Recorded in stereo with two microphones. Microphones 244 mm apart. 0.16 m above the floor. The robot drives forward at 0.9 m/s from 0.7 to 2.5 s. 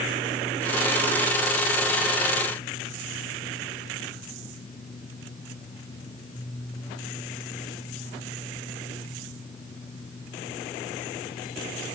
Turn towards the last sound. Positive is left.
No sound to turn to.